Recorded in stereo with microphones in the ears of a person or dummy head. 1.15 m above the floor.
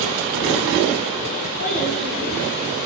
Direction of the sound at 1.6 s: 50° left (ahead or behind).